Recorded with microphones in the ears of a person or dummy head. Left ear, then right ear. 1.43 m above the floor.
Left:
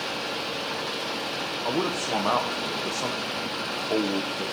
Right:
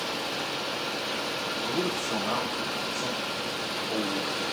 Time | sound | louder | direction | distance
1.6 | a man speaking | left 4 dB | 50° left (ahead or behind) | 0.9 m